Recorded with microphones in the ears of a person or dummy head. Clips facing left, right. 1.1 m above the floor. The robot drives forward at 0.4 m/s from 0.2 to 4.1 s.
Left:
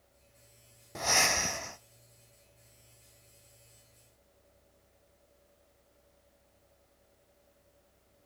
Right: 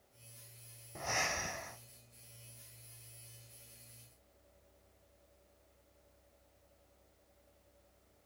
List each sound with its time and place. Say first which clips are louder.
0.9 s breathing: left 7 dB; 70° left (ahead or behind), 0.5 m; by 1.8 s 50° left (ahead or behind), 0.6 m